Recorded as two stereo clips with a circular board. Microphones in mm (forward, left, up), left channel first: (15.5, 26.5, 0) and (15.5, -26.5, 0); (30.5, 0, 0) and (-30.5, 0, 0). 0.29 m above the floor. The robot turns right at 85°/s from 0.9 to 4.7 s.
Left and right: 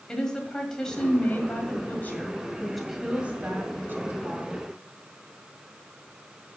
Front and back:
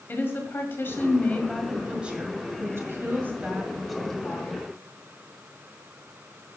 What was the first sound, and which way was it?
A woman speaking, 20° left.